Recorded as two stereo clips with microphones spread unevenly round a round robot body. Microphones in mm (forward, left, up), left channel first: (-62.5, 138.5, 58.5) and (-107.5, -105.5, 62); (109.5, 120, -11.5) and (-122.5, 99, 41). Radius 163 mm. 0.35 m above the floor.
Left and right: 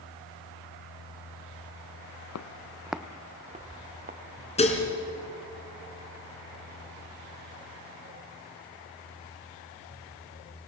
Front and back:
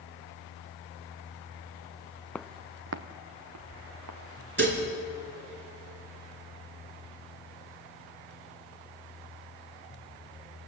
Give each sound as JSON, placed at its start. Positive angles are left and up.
{"t": 2.4, "sound": "footsteps", "azimuth_deg": 95, "distance_m": 0.8}
{"t": 4.6, "sound": "dishes clattering", "azimuth_deg": 145, "distance_m": 3.0}